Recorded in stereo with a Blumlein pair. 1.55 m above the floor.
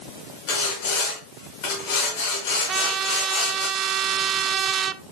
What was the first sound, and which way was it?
Sawing, 50° left.